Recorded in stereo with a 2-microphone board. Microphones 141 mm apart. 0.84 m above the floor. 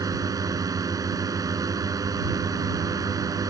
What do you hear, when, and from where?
0.0 s a drone: 25° right (ahead or behind)